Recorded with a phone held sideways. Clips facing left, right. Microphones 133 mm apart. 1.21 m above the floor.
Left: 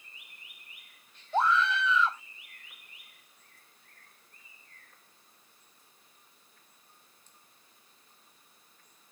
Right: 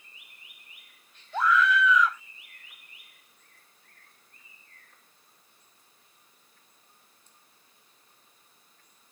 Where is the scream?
30° left (ahead or behind).